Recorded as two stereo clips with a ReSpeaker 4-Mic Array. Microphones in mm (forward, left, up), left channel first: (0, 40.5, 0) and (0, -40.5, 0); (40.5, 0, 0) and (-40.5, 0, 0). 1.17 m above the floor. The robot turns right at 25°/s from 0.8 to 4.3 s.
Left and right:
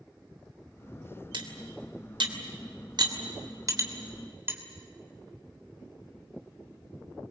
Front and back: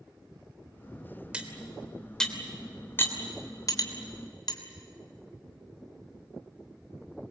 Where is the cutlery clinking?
100° right, 3 m; by 4.6 s 30° right, 3 m.